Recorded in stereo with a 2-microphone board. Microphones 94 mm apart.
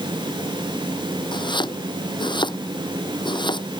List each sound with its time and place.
1.3 s chopping: 55° left (ahead or behind)